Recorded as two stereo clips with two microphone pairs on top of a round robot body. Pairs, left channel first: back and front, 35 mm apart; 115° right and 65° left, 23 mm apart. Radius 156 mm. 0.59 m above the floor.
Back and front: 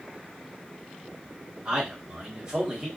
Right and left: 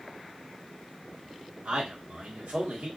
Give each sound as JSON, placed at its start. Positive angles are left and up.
{"t": 1.6, "sound": "a man speaking", "azimuth_deg": 75, "distance_m": 1.5}